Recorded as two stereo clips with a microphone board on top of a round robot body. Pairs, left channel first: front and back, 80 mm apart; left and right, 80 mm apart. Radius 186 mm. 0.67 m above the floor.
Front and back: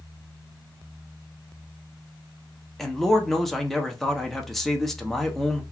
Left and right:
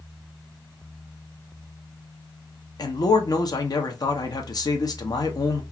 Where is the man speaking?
85° left, 0.9 m.